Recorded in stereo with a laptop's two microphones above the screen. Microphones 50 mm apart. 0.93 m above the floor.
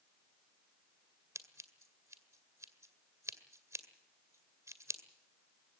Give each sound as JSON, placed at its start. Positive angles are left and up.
{"t": 1.4, "sound": "scissors", "side_deg": -85, "distance_m": 2.0}